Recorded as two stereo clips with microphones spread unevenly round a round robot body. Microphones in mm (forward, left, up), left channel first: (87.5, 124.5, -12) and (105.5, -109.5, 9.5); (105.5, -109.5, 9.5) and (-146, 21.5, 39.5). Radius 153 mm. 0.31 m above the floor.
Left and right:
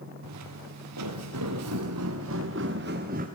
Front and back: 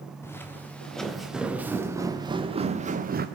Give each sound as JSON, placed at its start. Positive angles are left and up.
{"t": 0.2, "sound": "footsteps", "azimuth_deg": -110, "distance_m": 3.0}